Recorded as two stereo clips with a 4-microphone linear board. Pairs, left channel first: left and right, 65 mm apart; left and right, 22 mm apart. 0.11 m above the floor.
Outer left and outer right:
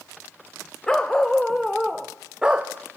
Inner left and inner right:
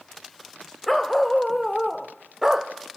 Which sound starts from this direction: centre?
A dog barking, at 0.9 s.